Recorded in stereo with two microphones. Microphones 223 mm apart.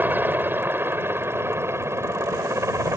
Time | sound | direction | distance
0.0 | a helicopter | 10° right (ahead or behind) | ?